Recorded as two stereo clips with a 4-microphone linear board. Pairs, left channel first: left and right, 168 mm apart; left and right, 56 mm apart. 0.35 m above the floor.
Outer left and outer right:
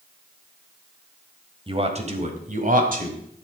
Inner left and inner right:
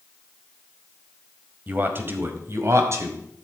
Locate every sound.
1.7 s a man speaking: 35° right (ahead or behind), 1.6 m; by 3.5 s 65° right (ahead or behind), 2 m